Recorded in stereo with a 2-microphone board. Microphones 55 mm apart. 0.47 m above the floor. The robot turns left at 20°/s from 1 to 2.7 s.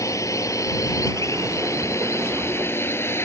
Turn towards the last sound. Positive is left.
turn(degrees=50)  # may be behind; listen again after turning